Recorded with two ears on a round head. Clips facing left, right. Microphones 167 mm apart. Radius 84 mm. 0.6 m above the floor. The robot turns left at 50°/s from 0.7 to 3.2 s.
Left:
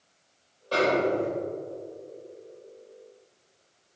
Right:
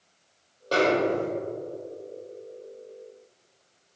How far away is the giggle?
No giggle in this recording.